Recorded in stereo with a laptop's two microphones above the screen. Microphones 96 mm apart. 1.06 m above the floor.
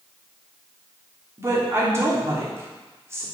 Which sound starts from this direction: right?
A woman speaking, at 1.4 s.